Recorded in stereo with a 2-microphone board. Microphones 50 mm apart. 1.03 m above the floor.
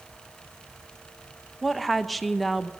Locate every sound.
1.6 s a woman speaking: centre (ahead or behind), 0.8 m